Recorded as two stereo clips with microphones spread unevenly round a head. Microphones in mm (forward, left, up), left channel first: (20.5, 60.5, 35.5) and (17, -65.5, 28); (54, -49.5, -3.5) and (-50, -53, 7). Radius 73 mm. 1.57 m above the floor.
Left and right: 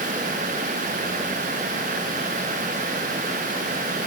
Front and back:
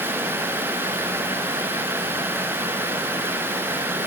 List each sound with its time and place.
Only background noise.